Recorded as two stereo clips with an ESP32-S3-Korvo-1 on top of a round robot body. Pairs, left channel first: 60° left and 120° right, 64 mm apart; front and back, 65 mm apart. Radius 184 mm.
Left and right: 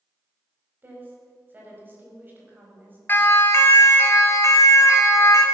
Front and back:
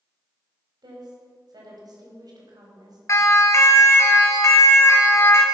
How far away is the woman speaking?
About 4.5 m.